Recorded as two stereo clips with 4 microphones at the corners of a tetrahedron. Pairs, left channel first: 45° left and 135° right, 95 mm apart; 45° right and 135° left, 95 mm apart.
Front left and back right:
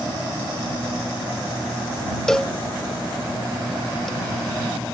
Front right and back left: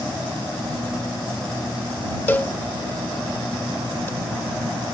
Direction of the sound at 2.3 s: 35° right.